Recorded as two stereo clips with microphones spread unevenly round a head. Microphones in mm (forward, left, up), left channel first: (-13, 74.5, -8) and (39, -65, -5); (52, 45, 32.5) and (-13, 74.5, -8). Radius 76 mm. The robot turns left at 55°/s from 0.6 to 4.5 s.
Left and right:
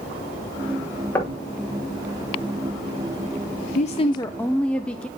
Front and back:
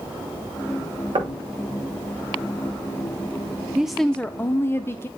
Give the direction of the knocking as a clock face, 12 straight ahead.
6 o'clock.